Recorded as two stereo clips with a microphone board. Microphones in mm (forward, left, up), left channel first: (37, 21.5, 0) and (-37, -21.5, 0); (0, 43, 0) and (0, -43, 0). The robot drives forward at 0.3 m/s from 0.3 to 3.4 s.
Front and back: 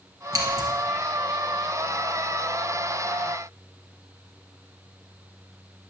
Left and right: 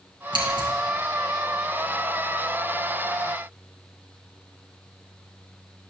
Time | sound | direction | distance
0.3 | scissors | 105° right | 2.5 m